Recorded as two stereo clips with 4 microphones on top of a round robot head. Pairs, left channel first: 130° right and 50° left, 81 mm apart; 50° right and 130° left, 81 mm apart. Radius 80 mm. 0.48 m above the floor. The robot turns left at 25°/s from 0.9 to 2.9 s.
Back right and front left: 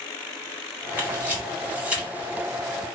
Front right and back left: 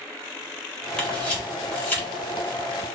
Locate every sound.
1.0 s a camera shutter: 15° left, 1.4 m; by 2.1 s 10° right, 1.4 m